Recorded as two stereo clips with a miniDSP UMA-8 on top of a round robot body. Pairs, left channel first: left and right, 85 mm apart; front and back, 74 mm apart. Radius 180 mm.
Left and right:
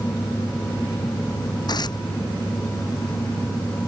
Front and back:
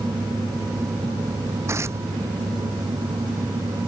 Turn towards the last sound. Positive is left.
turn(degrees=125)